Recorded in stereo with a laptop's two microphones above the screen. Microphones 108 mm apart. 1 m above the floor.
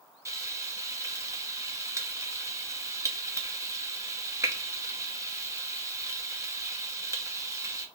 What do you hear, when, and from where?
0.2 s frying: 30° right (ahead or behind), 0.8 m